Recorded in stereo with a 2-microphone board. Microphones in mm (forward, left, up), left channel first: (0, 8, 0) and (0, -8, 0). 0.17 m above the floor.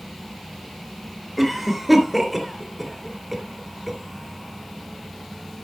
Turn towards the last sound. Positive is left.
turn(degrees=-5)  # may be behind; listen again after turning